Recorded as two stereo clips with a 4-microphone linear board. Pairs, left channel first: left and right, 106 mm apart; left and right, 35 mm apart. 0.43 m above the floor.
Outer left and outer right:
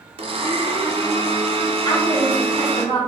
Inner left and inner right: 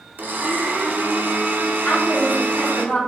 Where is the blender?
60° right (ahead or behind), 0.8 m.